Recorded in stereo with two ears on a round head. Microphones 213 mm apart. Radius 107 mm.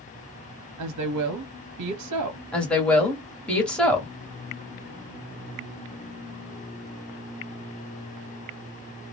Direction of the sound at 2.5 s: 5° left (ahead or behind).